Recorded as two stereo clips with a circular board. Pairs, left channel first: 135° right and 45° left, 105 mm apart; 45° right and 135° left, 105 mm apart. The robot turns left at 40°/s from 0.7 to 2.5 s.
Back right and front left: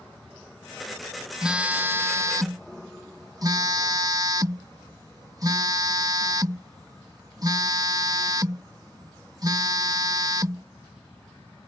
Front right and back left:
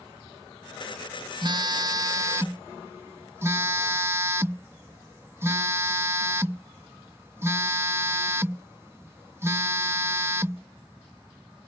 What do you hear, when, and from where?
1.4 s a phone buzzing: 125° left; by 10.7 s 80° left